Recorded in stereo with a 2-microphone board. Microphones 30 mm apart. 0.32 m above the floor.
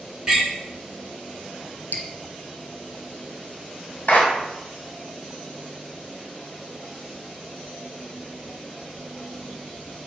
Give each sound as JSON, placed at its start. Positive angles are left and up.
{"t": 0.3, "sound": "a door slam", "side_deg": -20, "distance_m": 2.5}
{"t": 1.9, "sound": "dripping", "side_deg": 65, "distance_m": 0.9}
{"t": 4.1, "sound": "a clap", "side_deg": 60, "distance_m": 2.5}